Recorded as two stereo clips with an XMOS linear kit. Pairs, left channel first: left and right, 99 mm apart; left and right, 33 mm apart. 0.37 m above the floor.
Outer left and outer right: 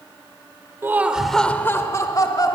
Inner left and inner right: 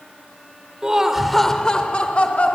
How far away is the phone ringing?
I don't hear a phone ringing.